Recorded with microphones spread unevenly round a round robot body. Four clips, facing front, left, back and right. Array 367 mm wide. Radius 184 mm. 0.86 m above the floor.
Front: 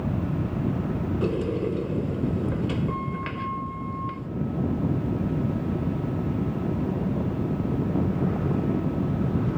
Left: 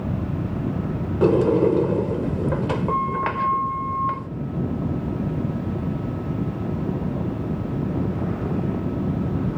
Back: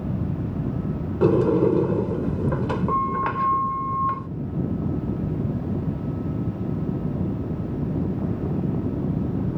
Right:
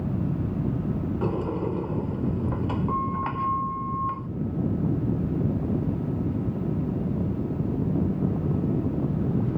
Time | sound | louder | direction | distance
1.2 | a sliding door | left 14 dB, back 11 dB | 140° left | ?